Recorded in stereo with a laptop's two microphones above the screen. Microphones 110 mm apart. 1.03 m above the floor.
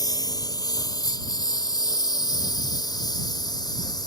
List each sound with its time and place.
0.0 s a lawn mower: 35° left (ahead or behind); by 4.1 s 40° left (ahead or behind)